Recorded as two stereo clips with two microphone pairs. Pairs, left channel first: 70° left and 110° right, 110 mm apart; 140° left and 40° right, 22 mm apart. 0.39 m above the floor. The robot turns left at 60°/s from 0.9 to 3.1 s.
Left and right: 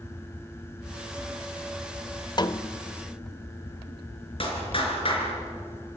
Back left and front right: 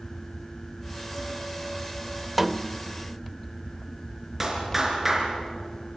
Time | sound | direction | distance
2.4 | a snare drum | 40° left | 0.7 m
4.4 | a clap | 35° left | 4 m